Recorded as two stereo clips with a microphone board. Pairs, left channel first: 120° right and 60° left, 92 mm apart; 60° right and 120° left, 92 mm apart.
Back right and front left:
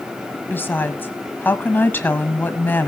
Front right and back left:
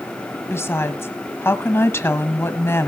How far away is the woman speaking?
About 1.4 m.